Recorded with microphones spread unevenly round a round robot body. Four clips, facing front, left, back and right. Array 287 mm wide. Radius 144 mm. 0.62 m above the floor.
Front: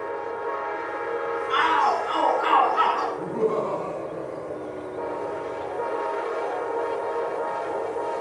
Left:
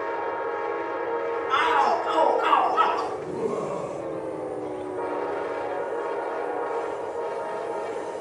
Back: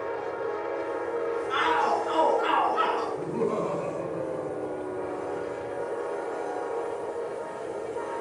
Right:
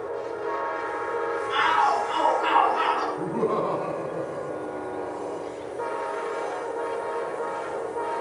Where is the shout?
130° left, 7 m; by 3.1 s 125° left, 8.5 m.